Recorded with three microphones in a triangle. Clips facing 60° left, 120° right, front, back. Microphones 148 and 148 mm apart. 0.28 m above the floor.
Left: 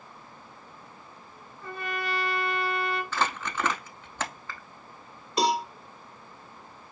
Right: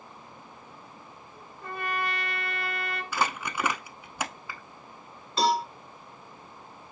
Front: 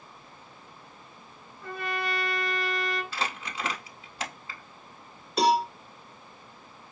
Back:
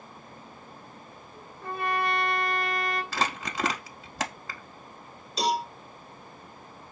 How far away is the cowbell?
About 2.5 m.